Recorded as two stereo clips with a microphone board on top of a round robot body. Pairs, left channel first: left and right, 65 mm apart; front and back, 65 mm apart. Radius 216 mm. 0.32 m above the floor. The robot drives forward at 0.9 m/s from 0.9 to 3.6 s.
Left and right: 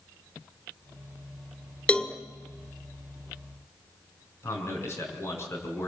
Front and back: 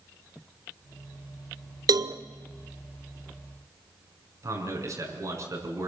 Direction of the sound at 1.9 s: 160° left.